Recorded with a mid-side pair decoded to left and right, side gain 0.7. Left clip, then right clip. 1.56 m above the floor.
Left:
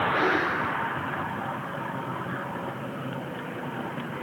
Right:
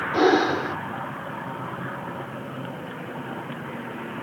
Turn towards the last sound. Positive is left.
turn(degrees=-60)